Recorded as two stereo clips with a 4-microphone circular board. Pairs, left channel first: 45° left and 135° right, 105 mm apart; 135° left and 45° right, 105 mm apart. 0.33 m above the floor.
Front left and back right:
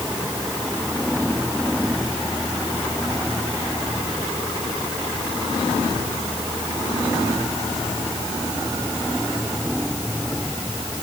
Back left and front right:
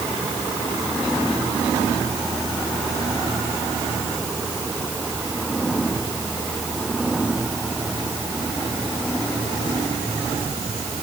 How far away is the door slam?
No door slam in this recording.